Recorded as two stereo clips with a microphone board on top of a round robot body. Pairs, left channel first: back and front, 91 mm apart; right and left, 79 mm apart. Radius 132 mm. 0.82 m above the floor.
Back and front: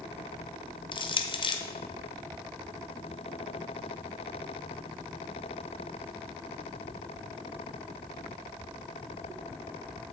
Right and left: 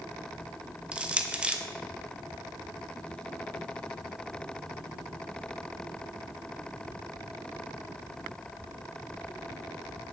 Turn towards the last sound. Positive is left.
turn(degrees=165)